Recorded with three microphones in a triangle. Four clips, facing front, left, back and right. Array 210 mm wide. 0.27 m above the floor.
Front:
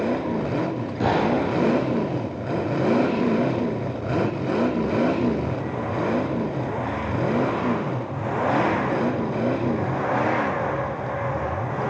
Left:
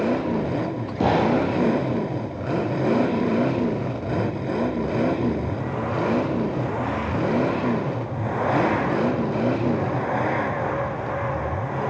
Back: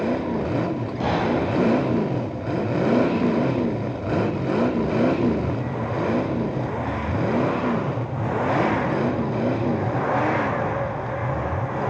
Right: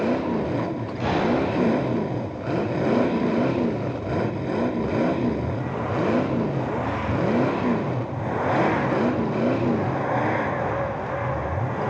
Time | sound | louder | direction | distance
1.0 | a gunshot | left 3 dB, front 2 dB | 85° left | 7.5 m